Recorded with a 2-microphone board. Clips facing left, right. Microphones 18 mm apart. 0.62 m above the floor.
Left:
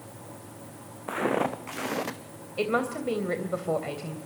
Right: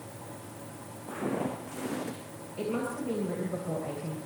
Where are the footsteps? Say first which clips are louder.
Left 6 dB; 80° left, 3 m; by 2.2 s 75° left (ahead or behind), 2 m.